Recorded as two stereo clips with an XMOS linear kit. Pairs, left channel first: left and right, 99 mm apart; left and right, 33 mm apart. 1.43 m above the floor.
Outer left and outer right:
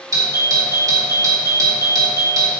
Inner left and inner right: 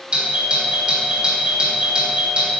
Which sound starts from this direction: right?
A doorbell, at 0.1 s.